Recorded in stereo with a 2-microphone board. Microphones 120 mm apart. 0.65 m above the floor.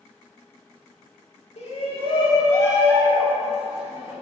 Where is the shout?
60° left (ahead or behind), 2.0 m; by 4.1 s 15° right (ahead or behind), 2.5 m.